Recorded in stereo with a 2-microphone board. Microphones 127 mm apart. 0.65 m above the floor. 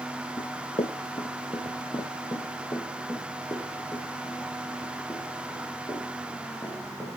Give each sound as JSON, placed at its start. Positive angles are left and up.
{"t": 0.4, "sound": "running footsteps", "side_deg": 45, "distance_m": 1.0}